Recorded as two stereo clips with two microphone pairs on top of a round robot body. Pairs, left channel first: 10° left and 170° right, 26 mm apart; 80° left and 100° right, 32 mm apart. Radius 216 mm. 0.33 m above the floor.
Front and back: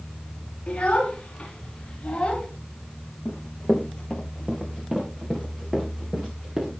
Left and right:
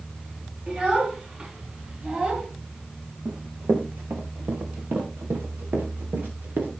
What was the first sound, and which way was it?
A child speaking, 45° right.